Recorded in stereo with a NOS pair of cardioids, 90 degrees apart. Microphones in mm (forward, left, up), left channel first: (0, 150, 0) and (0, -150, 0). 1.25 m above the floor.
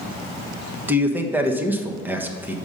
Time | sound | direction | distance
0.9 | a man speaking | 5° right | 1.2 m